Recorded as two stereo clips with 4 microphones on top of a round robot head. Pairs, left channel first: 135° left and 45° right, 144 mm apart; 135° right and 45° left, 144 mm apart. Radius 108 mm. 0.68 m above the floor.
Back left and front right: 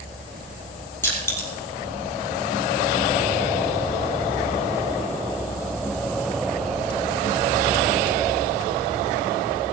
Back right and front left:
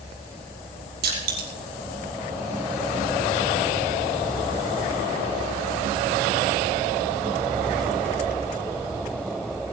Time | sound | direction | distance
1.0 | crushing | 60° left | 4.5 m